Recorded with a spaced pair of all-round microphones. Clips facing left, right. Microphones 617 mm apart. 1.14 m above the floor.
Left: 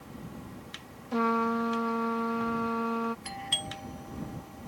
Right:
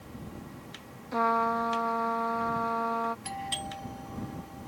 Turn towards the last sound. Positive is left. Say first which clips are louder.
# right 1 dB
turn(degrees=-60)  # may be behind; listen again after turning